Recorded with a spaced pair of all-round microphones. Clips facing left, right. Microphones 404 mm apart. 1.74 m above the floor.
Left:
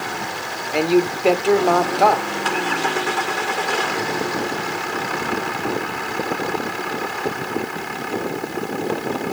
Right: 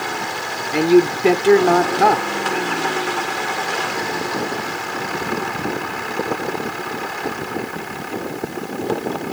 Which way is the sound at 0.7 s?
30° right (ahead or behind).